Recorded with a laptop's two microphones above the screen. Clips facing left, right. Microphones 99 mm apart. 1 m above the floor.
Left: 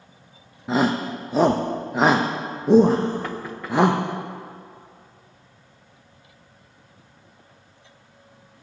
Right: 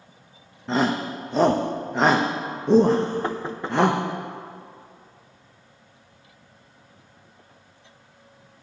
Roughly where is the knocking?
Right.